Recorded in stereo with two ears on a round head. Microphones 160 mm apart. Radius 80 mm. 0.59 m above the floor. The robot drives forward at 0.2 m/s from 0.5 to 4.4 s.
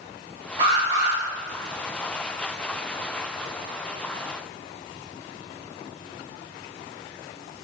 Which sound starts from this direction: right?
An alarm, at 0.6 s.